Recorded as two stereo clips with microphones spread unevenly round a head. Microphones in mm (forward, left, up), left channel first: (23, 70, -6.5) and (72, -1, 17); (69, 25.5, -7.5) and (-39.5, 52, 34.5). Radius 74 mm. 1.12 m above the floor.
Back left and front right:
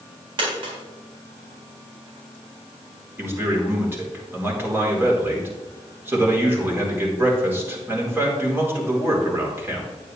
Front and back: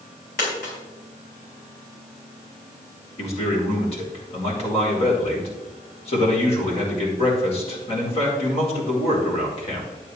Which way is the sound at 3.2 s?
10° left.